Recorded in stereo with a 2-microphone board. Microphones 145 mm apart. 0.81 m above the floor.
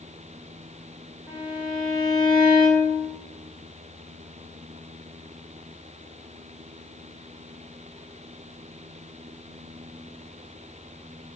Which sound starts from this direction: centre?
A violin, at 1.3 s.